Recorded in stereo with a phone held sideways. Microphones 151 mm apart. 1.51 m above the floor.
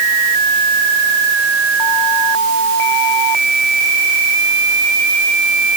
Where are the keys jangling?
No keys jangling in this recording.